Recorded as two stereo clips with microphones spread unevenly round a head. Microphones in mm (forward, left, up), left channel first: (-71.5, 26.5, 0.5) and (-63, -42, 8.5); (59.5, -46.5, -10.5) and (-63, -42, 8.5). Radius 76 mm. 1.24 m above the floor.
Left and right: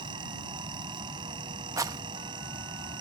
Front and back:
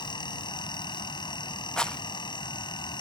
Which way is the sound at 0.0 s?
55° right.